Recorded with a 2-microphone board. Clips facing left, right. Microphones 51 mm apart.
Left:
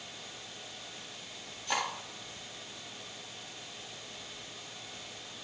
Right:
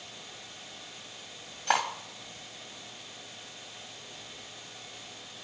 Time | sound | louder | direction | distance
1.7 | cutlery clinking | right 6 dB | 70° right (ahead or behind) | 2.5 m